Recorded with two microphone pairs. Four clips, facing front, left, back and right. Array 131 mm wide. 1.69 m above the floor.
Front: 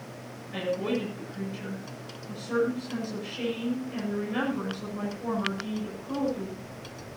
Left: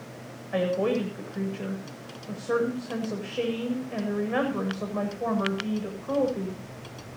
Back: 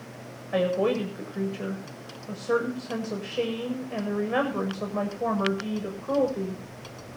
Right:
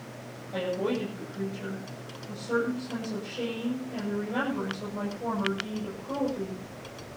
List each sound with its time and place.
0.5 s a woman speaking: 155° left, 8 m